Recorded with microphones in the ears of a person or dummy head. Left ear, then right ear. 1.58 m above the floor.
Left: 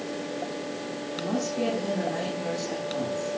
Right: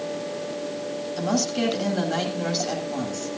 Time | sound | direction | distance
1.2 | a woman speaking | 75° right (ahead or behind) | 8.5 m